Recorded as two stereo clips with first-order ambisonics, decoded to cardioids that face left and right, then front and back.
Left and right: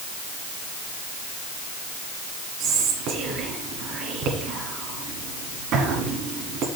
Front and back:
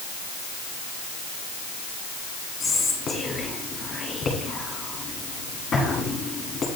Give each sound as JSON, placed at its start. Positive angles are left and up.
{"t": 2.6, "sound": "whispering", "azimuth_deg": -65, "distance_m": 1.7}